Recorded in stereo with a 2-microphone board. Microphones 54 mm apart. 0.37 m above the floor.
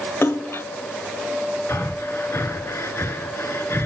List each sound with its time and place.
0.2 s a splash: 50° left (ahead or behind), 0.9 m
1.7 s breathing: 50° left (ahead or behind), 2 m